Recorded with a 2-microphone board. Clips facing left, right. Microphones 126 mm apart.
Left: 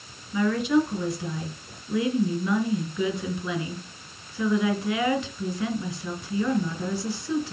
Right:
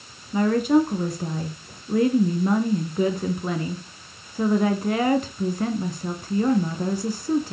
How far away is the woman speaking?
About 2 m.